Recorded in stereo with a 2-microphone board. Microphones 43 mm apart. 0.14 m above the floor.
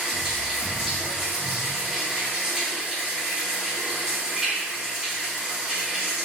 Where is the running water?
15° right (ahead or behind), 1.4 m.